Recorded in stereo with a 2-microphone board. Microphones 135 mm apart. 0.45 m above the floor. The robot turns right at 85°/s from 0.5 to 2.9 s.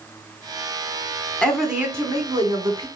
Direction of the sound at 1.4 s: 165° left.